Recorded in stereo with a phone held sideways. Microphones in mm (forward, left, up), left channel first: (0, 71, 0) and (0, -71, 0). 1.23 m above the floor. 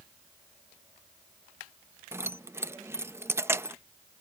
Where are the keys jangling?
15° right (ahead or behind).